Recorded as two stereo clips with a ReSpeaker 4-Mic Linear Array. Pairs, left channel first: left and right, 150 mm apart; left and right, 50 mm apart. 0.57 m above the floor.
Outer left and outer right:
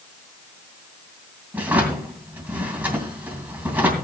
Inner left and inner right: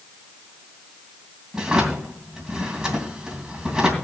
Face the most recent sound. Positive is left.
turn(degrees=-10)  # may be behind; listen again after turning